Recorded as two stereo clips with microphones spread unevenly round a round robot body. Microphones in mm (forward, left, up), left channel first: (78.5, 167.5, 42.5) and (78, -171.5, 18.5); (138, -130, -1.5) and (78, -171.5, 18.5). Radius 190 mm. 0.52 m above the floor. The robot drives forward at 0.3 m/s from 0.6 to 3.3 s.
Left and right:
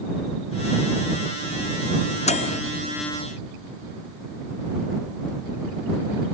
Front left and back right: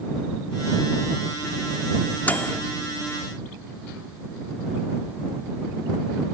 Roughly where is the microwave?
Ahead left.